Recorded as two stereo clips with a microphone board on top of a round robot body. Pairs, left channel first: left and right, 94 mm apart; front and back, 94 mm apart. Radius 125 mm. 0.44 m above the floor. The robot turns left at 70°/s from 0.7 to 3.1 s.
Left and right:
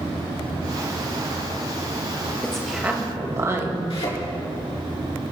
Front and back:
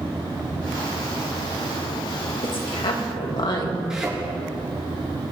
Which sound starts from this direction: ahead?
A woman speaking, at 2.4 s.